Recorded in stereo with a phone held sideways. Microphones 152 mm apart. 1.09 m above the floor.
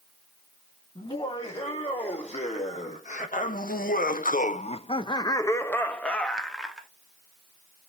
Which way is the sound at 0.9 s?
35° left (ahead or behind).